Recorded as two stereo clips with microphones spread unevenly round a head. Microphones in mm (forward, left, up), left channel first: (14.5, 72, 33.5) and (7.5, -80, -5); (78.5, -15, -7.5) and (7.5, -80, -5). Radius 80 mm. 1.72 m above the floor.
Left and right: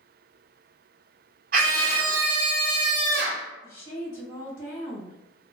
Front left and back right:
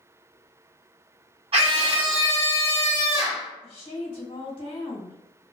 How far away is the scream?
About 1.1 m.